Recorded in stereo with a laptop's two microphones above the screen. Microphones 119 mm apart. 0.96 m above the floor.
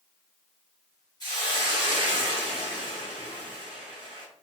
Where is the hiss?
35° left (ahead or behind), 1.8 m.